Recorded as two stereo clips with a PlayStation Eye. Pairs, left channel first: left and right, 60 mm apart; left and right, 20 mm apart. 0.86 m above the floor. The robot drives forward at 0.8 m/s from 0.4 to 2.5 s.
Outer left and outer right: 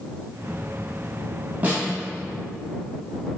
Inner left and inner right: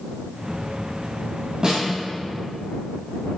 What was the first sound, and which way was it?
A snare drum, 25° right (ahead or behind).